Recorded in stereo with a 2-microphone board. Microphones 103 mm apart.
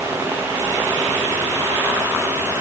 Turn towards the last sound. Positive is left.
No sound to turn to.